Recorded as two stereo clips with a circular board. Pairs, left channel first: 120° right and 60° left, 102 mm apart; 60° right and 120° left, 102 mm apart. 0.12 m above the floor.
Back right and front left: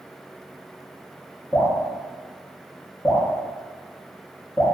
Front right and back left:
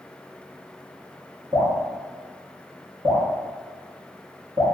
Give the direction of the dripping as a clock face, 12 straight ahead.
8 o'clock.